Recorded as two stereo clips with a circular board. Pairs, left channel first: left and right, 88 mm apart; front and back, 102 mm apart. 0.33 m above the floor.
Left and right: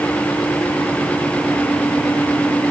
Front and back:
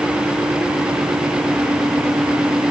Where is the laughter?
I don't hear laughter.